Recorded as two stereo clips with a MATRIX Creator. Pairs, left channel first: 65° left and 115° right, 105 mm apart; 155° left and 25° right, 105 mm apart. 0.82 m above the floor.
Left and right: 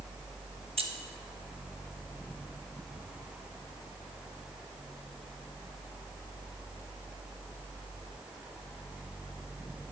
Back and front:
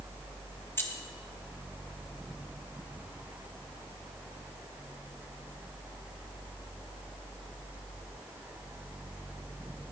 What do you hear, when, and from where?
0.8 s keys jangling: 135° right, 1.0 m